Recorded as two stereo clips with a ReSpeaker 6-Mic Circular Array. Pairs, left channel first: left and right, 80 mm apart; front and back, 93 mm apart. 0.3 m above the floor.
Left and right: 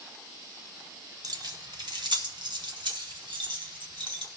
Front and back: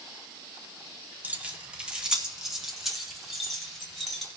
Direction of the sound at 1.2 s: 110° right.